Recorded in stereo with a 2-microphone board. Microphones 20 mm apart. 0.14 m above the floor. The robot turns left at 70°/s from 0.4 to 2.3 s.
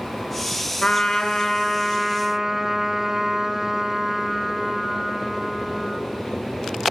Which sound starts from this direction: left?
A trumpet, at 0.8 s.